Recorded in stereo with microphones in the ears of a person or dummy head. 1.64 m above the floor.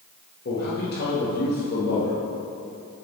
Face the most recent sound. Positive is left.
turn(degrees=55)  # may be behind; listen again after turning